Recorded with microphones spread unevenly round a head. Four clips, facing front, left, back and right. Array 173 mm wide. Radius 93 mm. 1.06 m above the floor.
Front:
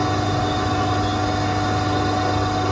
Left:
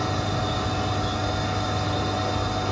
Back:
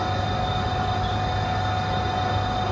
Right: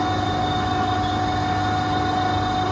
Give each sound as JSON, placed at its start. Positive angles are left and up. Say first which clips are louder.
{"t": 0.0, "sound": "a machine running", "louder": "right 5 dB, front 5 dB", "azimuth_deg": -25, "distance_m": 1.0}